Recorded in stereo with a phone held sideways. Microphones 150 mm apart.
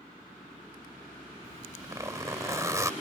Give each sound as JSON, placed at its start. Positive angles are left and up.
{"t": 1.4, "sound": "a zipper", "side_deg": -20}